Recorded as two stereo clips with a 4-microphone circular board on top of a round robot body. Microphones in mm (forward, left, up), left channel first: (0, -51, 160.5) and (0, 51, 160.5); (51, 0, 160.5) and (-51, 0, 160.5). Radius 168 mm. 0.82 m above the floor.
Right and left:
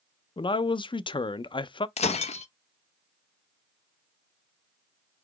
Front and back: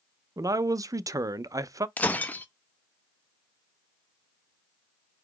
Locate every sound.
0.4 s a man speaking: 125° right, 0.5 m
2.0 s breaking glass: 75° right, 0.6 m